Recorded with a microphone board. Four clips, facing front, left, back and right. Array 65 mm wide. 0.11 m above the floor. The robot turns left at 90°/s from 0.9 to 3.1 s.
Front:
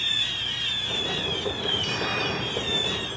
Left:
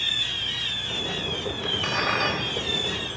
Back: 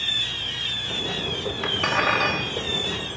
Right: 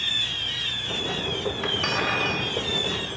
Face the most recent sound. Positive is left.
turn(degrees=75)